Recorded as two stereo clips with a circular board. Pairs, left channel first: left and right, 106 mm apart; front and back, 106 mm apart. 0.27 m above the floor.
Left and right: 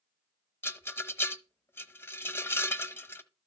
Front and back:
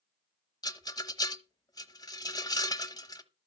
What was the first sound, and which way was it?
A rattle, 30° left.